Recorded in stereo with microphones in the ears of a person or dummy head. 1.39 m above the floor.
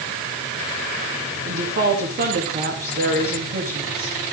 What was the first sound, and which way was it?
A woman speaking, 45° right (ahead or behind).